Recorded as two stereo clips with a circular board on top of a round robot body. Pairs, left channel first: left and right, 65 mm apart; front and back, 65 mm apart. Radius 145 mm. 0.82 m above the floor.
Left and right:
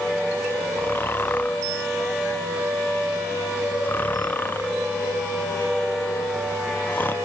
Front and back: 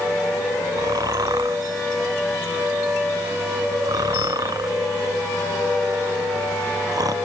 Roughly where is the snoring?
Behind left.